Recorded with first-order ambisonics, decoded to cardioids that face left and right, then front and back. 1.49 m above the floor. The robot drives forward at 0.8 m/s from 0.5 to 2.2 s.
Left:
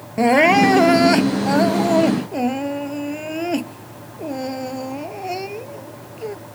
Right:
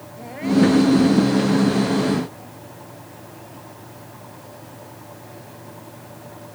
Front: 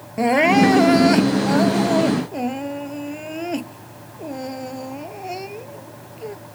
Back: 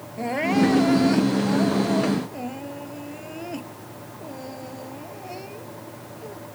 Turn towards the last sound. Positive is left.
turn(degrees=65)